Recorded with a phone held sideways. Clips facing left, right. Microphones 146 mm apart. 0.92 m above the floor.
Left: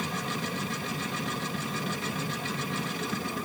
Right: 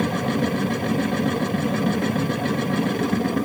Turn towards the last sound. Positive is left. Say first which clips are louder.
# right 12 dB
turn(degrees=-60)  # may be behind; listen again after turning